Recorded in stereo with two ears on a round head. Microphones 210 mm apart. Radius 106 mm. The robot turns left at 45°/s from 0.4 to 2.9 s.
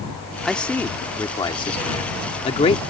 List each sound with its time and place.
0.5 s a man speaking: centre (ahead or behind); by 2.8 s 25° left (ahead or behind)